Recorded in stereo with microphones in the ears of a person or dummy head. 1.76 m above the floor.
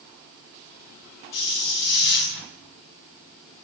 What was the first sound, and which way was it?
A hiss, 60° left (ahead or behind).